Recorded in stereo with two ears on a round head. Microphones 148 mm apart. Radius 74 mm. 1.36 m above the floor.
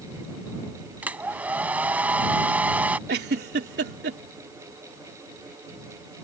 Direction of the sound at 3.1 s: 70° right (ahead or behind).